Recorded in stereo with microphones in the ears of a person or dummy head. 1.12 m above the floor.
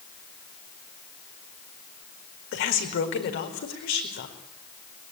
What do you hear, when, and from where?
2.5 s a woman speaking: 60° left (ahead or behind), 4.5 m